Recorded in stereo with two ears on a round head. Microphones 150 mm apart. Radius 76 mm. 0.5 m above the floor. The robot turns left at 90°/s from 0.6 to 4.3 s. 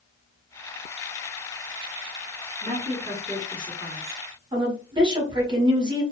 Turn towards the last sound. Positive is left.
turn(degrees=-25)  # may be behind; listen again after turning